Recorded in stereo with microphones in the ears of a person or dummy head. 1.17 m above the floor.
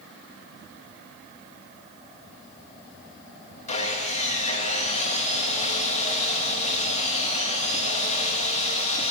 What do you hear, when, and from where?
3.7 s sawing: 35° left (ahead or behind), 1.2 m